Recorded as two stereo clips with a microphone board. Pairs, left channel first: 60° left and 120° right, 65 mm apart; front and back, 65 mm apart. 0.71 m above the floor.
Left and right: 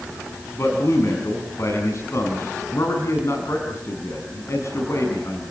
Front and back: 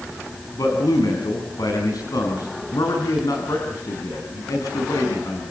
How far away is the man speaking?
About 6 m.